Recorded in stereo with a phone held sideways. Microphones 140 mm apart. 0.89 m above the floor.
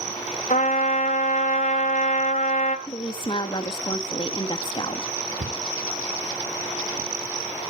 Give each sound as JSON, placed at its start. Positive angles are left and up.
{"t": 0.5, "sound": "a trumpet", "side_deg": 65, "distance_m": 1.9}
{"t": 2.9, "sound": "a woman speaking", "side_deg": 35, "distance_m": 1.7}
{"t": 5.4, "sound": "a cupboard door", "side_deg": -65, "distance_m": 3.0}